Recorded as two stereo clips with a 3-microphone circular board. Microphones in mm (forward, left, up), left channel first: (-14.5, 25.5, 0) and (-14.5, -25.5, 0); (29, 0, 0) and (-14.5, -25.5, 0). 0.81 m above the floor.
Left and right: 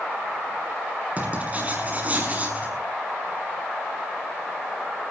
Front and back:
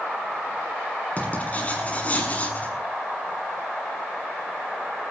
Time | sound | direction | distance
1.2 | writing | 30° right | 6 m